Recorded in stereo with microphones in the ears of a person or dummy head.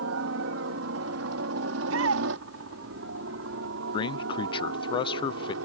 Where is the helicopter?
70° right (ahead or behind); by 5.6 s 75° right (ahead or behind).